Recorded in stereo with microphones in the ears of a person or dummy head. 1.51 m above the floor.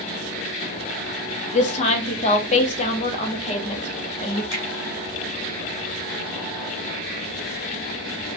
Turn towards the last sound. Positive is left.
turn(degrees=70)  # may be behind; listen again after turning